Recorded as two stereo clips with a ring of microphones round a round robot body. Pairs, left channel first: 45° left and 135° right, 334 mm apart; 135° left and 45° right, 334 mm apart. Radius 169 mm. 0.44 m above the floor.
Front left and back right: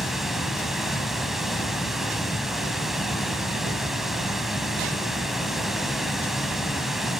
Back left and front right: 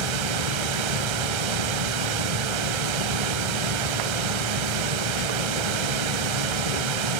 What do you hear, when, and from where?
0.0 s running water: 45° right, 0.7 m